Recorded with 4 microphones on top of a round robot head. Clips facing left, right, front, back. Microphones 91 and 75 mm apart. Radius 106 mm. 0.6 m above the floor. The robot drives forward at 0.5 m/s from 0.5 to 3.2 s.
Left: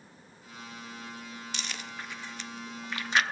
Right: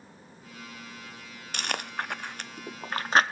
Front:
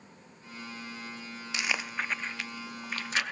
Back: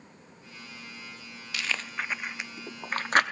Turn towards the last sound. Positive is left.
turn(degrees=-140)